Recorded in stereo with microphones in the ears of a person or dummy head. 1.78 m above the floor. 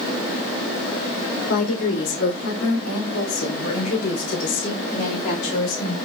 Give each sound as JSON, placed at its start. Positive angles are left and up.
{"t": 1.5, "sound": "a woman speaking", "side_deg": 75, "distance_m": 4.0}